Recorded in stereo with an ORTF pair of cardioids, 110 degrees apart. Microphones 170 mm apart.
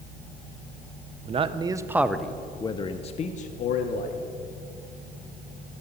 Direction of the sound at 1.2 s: 40° right.